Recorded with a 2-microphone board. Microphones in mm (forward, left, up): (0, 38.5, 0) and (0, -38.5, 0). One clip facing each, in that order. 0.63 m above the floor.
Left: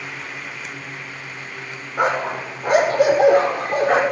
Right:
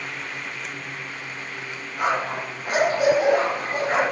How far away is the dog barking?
About 7 m.